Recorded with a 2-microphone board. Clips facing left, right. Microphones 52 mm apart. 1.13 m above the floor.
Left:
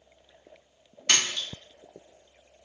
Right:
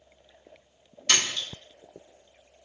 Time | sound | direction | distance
1.1 | a splash | 25° left (ahead or behind) | 1.2 m